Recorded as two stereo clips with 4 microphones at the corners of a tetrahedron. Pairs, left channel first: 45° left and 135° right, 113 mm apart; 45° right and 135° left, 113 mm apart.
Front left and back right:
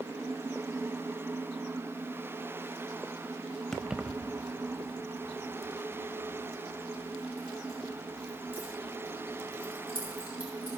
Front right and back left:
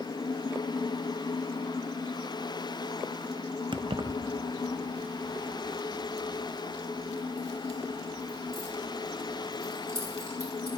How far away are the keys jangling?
About 0.6 m.